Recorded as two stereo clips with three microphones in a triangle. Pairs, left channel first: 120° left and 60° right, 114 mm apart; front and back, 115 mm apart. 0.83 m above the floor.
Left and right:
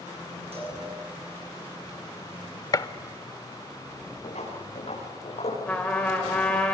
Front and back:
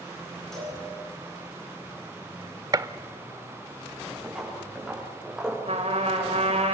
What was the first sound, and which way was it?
A cowbell, 85° right.